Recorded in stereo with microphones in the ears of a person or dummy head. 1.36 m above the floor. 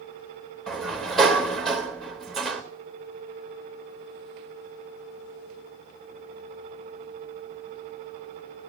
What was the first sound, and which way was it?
A sliding door, centre (ahead or behind).